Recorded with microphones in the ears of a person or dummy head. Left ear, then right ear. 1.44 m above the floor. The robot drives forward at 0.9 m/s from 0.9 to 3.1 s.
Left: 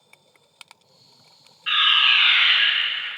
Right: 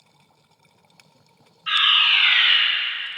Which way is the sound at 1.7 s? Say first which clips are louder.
Even; 5° left (ahead or behind).